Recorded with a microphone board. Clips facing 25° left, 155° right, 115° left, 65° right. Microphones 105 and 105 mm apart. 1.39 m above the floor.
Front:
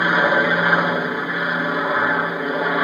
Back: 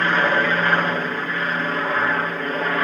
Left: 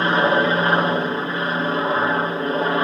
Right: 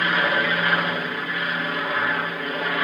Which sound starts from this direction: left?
An aircraft, at 0.0 s.